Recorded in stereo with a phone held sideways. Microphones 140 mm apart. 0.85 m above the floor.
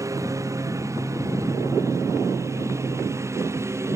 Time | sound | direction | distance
0.0 | a lawn mower | 20° right (ahead or behind) | ?